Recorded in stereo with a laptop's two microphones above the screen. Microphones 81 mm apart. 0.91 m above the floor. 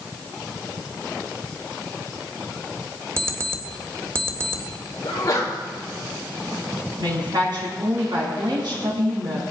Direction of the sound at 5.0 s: 40° left (ahead or behind).